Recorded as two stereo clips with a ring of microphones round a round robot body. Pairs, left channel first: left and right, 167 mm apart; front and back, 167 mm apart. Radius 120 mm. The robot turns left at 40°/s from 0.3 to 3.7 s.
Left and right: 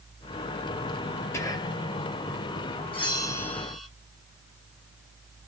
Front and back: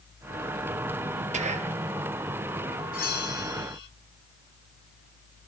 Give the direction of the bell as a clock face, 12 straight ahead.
11 o'clock.